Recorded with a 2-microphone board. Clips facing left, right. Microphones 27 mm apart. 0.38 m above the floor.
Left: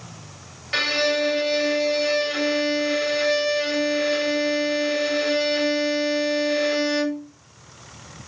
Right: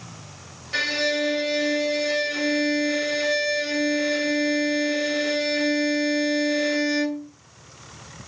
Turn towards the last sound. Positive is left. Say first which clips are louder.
# left 2 dB
turn(degrees=40)  # may be behind; listen again after turning